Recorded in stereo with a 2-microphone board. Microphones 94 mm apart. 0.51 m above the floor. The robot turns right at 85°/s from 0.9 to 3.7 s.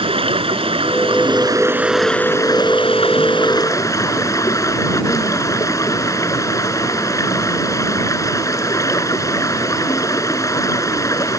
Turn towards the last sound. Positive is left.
turn(degrees=145)